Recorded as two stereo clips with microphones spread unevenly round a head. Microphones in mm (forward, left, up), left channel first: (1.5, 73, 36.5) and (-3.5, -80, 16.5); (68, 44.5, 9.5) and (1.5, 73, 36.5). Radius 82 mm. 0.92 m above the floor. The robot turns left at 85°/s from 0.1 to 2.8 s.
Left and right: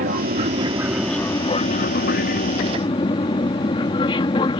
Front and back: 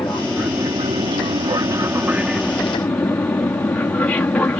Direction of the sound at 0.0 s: 100° right.